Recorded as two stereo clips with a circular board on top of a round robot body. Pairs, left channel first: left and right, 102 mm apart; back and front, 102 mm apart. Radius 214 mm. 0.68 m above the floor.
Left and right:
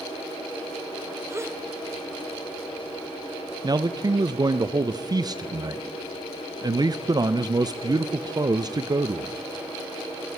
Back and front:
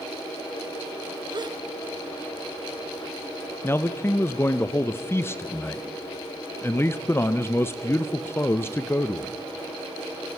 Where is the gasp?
35° right, 1.2 m.